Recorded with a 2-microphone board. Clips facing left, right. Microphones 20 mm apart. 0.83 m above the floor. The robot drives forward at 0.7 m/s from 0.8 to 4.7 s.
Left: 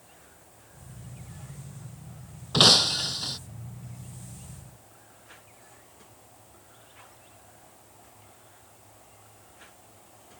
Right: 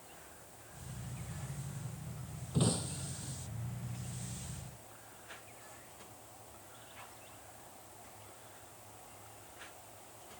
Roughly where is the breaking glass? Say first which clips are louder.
Left 17 dB; left.